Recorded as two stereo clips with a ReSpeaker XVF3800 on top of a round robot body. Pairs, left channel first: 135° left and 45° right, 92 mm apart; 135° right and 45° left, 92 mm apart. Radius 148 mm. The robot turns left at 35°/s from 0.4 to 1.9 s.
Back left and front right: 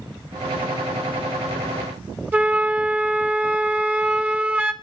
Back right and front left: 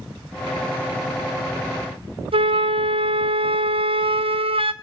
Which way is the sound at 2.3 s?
25° left.